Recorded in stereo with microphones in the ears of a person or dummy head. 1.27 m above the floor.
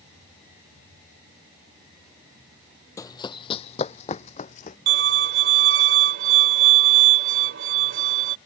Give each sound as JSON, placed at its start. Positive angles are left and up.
{"t": 3.0, "sound": "running footsteps", "side_deg": 15}
{"t": 4.9, "sound": "a violin", "side_deg": -65}